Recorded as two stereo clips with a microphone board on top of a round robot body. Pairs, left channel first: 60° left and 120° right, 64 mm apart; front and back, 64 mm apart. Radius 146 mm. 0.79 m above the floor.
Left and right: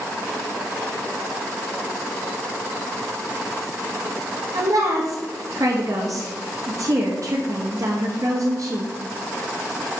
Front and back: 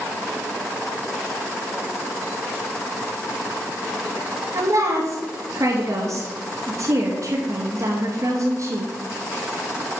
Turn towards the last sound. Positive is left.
turn(degrees=-150)